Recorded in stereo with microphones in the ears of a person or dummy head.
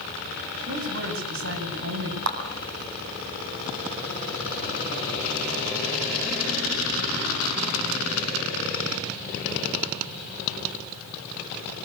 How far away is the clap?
About 8.5 m.